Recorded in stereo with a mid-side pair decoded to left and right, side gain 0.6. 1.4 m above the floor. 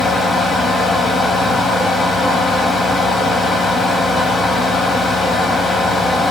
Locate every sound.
0.0 s a fan: 35° left, 2.5 m